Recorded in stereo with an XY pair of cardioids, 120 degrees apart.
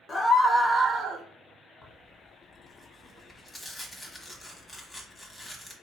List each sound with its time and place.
0.1 s a scream: 30° left, 1.2 m; by 1.2 s 55° right, 1.1 m
1.8 s tearing paper: 15° left, 1.2 m